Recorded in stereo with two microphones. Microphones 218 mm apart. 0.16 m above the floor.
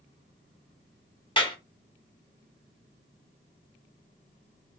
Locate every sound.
1.4 s a clap: 25° left (ahead or behind), 1.0 m